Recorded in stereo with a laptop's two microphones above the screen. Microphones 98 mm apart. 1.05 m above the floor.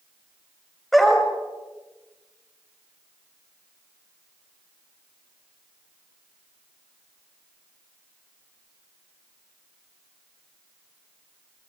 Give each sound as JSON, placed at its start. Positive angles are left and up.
{"t": 0.9, "sound": "a dog barking", "side_deg": 0, "distance_m": 2.0}